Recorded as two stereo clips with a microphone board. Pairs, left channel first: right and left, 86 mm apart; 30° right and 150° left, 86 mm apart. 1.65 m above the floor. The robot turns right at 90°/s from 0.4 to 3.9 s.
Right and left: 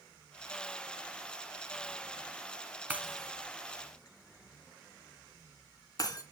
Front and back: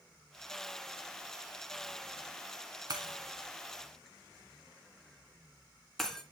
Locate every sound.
2.9 s breaking glass: 155° left, 2.5 m; by 6.2 s 115° right, 2.5 m